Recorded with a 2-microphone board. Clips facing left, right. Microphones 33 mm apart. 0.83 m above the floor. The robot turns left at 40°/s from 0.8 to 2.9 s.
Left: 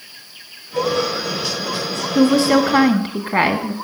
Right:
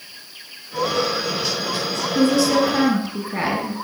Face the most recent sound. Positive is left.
turn(degrees=40)  # may be behind; listen again after turning